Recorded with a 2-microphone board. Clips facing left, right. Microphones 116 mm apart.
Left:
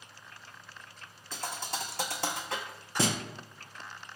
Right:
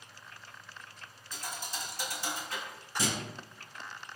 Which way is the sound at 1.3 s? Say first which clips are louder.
Left 4 dB; 65° left (ahead or behind).